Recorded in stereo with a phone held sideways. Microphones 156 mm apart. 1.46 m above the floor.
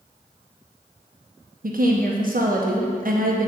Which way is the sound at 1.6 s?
65° right (ahead or behind).